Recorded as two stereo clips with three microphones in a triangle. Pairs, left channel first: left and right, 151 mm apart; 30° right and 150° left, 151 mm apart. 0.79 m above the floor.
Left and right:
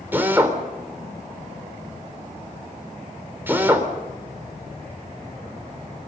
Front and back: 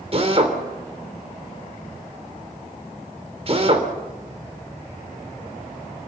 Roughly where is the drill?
Behind.